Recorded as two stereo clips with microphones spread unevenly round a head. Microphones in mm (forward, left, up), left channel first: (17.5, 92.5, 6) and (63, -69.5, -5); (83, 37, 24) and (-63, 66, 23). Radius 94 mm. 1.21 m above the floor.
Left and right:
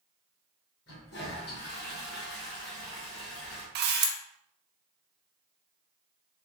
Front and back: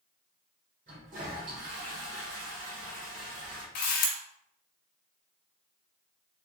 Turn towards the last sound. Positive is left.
turn(degrees=-50)